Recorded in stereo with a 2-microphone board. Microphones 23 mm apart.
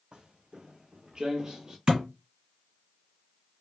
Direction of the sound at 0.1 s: 45° right (ahead or behind).